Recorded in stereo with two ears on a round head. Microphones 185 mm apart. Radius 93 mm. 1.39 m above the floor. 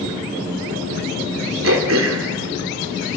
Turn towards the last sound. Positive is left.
turn(degrees=-70)  # may be behind; listen again after turning